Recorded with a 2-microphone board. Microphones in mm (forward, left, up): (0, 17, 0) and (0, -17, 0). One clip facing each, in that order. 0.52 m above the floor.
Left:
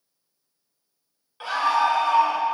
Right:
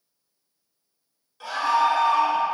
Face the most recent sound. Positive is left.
turn(degrees=55)  # may be behind; listen again after turning